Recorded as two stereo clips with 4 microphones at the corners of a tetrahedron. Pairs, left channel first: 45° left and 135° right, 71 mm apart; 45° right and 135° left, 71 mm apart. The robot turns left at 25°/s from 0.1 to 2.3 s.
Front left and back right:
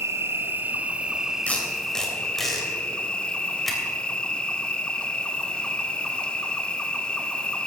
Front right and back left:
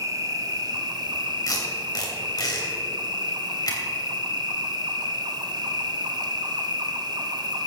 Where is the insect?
175° left, 0.8 m; by 7.7 s 120° left, 0.8 m.